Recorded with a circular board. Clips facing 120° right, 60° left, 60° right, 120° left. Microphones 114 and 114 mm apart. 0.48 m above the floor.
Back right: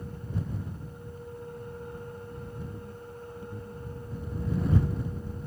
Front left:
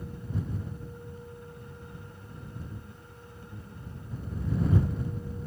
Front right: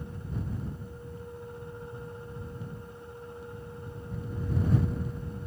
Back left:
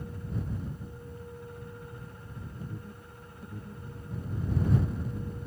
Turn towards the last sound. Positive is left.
turn(degrees=170)